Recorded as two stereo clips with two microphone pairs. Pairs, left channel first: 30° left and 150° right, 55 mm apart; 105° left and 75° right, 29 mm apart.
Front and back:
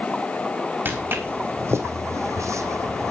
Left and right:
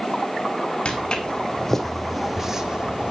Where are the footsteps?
165° left, 3 m; by 3.1 s 125° right, 2.5 m.